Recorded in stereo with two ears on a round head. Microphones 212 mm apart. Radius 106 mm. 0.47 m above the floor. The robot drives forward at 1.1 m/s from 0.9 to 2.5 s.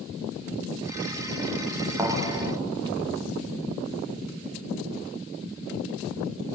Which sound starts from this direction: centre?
A thud, at 2.0 s.